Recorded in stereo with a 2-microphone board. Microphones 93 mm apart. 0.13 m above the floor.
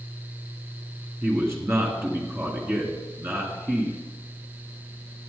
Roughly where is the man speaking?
Right.